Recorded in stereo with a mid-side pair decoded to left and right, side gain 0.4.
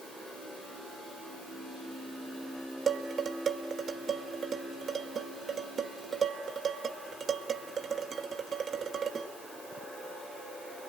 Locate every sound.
2.9 s dishes clattering: 55° right, 1.9 m